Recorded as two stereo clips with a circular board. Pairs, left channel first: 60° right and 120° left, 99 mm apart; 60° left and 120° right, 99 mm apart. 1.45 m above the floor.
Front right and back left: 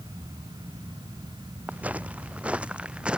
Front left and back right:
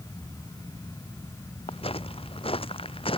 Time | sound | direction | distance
1.7 | footsteps | 45° left | ?